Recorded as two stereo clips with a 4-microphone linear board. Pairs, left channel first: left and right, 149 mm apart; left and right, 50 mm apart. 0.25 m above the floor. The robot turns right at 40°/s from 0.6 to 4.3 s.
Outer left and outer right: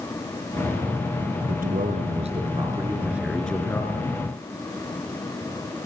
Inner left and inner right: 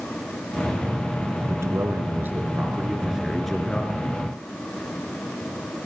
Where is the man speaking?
75° right, 4.5 m; by 4.1 s 30° left, 4.5 m.